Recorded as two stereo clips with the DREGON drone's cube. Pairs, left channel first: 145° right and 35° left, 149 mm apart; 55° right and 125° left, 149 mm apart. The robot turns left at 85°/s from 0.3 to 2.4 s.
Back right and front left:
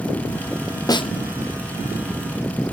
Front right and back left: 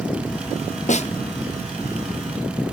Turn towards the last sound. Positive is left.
turn(degrees=150)